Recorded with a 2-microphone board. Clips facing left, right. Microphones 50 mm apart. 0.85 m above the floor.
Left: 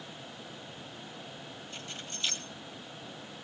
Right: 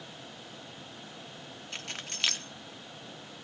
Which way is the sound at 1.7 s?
75° right (ahead or behind).